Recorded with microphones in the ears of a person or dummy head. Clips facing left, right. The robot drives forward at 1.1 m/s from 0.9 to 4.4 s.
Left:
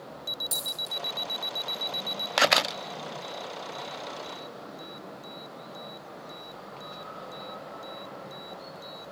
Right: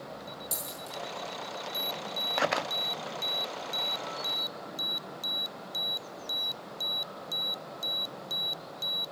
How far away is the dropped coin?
About 6.5 m.